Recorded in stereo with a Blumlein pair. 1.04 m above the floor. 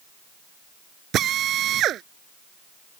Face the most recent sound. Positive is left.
turn(degrees=-30)